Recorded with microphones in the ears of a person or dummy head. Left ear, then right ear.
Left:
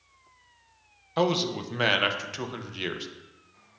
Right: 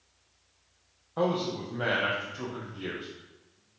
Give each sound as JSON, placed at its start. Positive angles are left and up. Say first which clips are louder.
{"t": 1.2, "sound": "a man speaking", "louder": "left 3 dB", "side_deg": 70, "distance_m": 0.6}